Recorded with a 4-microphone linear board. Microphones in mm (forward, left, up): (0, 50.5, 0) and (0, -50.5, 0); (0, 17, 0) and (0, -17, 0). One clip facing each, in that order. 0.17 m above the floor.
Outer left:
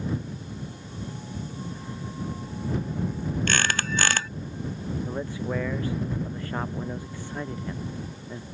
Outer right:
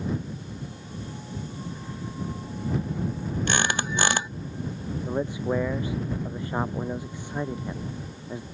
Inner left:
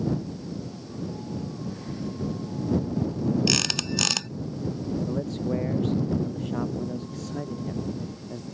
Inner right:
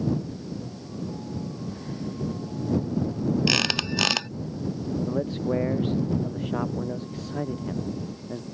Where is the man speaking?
15° right (ahead or behind).